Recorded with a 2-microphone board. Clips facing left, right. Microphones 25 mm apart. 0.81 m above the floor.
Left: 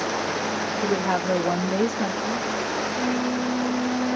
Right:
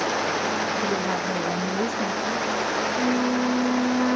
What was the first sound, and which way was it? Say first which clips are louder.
A woman speaking: left 2 dB; 25° left (ahead or behind).